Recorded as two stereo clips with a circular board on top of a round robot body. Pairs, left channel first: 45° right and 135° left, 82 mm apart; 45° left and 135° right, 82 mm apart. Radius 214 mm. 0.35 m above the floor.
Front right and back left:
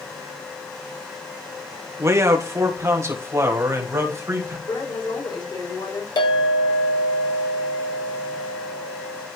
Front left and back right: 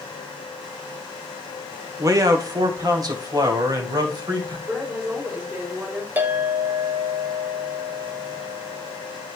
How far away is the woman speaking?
About 6 m.